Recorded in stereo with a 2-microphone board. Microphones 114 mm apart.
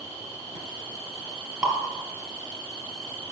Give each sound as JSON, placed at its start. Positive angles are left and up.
{"t": 1.6, "sound": "dripping", "side_deg": -5, "distance_m": 1.6}